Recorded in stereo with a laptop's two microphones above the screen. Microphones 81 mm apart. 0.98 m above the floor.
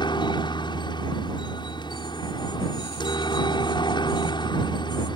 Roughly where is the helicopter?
Left.